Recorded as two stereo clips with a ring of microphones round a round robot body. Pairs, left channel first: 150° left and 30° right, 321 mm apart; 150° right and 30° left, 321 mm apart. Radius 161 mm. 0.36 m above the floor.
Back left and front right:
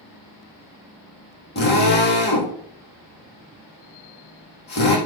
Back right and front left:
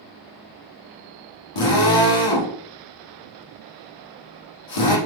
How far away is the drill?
About 6 m.